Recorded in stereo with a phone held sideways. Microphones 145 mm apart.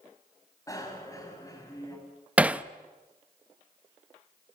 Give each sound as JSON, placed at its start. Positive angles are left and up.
{"t": 0.7, "sound": "a bicycle bell", "side_deg": 25, "distance_m": 5.5}
{"t": 2.4, "sound": "hammering", "side_deg": -10, "distance_m": 0.7}